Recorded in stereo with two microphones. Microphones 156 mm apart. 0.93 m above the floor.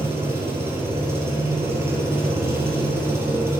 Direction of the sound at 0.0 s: 15° right (ahead or behind).